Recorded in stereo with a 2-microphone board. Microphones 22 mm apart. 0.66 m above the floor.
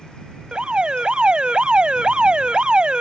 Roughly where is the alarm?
Right.